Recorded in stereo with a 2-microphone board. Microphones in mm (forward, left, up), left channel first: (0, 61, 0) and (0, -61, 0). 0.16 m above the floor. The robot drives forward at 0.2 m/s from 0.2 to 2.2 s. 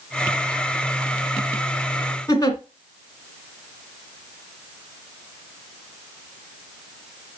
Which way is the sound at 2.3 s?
30° left (ahead or behind).